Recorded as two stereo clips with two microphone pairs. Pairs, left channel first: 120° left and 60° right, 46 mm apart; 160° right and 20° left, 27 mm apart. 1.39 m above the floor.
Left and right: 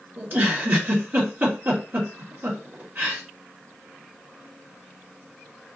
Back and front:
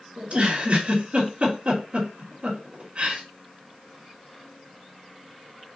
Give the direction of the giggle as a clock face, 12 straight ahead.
1 o'clock.